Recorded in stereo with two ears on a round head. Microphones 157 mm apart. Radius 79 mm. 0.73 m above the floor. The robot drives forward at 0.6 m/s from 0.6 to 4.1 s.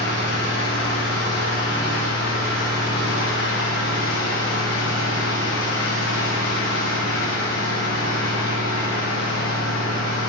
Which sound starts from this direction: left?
An engine running, at 0.0 s.